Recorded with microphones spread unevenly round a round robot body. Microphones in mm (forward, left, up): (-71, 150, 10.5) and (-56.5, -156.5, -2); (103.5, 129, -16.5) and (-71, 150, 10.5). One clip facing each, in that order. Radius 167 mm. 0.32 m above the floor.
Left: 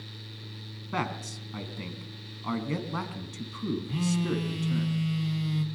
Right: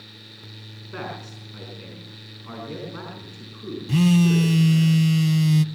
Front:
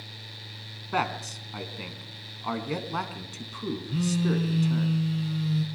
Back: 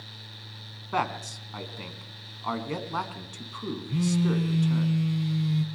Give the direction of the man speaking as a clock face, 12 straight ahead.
10 o'clock.